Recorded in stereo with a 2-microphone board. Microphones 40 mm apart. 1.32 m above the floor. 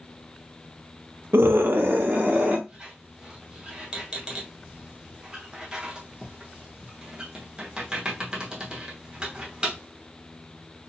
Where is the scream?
75° right (ahead or behind), 0.5 m; by 2.6 s 50° right (ahead or behind), 1.4 m.